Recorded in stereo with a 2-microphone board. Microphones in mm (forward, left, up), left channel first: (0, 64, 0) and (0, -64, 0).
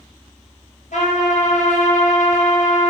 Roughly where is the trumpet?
Left.